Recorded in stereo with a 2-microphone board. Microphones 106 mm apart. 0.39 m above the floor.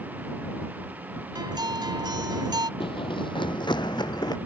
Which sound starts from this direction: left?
Running footsteps, at 2.8 s.